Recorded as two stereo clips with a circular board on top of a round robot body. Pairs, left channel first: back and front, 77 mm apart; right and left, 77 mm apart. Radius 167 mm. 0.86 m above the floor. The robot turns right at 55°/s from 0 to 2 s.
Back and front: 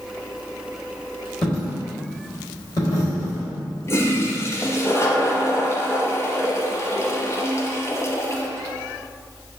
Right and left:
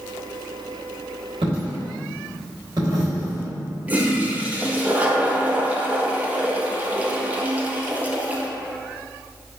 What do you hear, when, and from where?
1.4 s a dropped coin: 100° left, 1.0 m; by 3.5 s 135° left, 1.0 m
3.9 s a toilet flushing: 150° left, 0.8 m